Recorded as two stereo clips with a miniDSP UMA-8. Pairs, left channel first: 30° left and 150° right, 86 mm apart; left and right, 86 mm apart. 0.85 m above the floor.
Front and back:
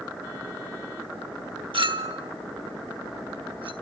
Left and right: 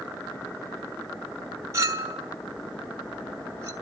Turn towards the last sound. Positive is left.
turn(degrees=-145)